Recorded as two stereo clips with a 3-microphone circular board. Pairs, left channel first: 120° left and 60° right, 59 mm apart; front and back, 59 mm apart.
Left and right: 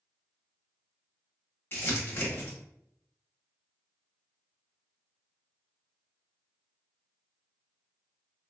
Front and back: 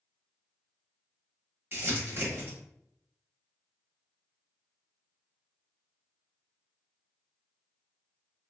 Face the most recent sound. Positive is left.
turn(degrees=145)